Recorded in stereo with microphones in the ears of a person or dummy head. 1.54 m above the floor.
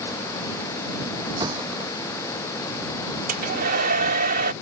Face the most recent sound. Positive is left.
turn(degrees=-55)  # may be behind; listen again after turning